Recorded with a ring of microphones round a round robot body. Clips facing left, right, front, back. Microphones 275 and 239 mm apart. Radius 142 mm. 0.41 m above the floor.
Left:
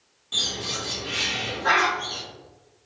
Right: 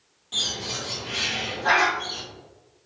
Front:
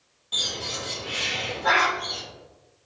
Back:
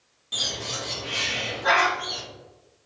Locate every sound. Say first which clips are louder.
0.3 s a bird: left 1 dB, even; 155° left, 1.4 m